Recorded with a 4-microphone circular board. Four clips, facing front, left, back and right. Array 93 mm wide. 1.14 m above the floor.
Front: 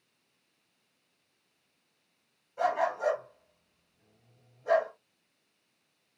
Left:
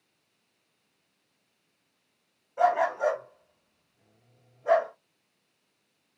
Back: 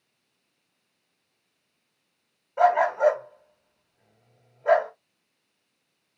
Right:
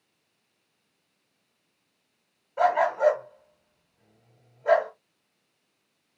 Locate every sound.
2.6 s a dog barking: 165° right, 2 m